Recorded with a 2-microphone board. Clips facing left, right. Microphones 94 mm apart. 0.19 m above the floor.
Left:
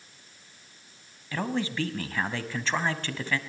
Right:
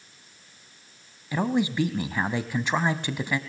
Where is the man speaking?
15° right (ahead or behind), 1.2 m.